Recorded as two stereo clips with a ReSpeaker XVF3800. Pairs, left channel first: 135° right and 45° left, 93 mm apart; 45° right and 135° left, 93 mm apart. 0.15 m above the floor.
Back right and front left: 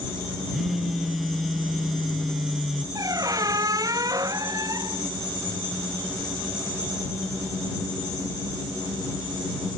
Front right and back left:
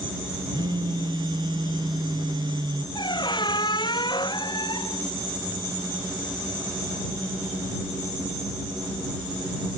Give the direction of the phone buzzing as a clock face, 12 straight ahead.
8 o'clock.